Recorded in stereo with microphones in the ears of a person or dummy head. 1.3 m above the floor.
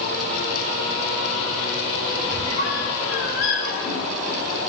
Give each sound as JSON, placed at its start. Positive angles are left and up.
{"t": 2.3, "sound": "a squeak", "side_deg": 75, "distance_m": 5.0}